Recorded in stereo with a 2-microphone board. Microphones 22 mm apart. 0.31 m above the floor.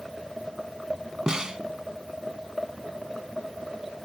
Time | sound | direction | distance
1.3 | a snare drum | 35° right (ahead or behind) | 0.8 m